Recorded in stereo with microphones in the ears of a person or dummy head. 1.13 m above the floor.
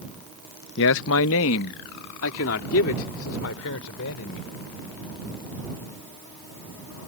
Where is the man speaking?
65° left (ahead or behind); by 4.5 s 75° left (ahead or behind).